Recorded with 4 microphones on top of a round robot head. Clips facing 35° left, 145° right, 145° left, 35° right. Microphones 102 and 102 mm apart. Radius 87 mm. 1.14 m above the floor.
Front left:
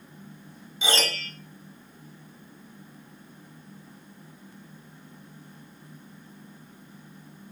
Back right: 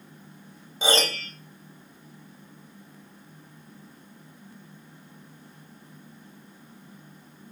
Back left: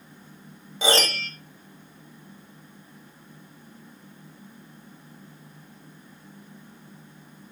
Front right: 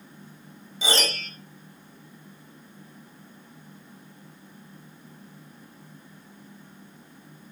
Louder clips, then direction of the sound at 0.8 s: Back right 3 dB, back left 4 dB; 165° left.